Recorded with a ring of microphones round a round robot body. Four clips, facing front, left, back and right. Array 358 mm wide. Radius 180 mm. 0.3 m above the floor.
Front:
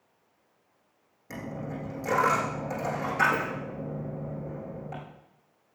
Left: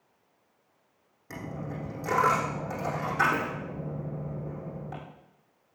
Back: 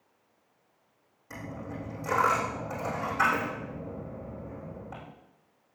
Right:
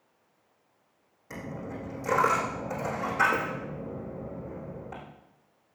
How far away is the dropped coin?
About 7 m.